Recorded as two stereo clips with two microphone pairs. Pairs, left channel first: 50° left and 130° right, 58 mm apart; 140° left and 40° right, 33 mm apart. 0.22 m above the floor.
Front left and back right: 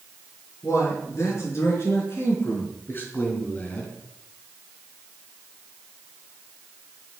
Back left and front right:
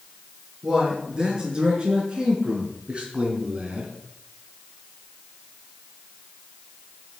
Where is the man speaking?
25° left, 4.5 m; by 4.0 s 10° right, 2.5 m.